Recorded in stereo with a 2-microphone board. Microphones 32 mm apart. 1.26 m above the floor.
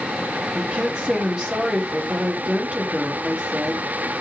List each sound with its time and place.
0.6 s a woman speaking: 30° right (ahead or behind), 4 m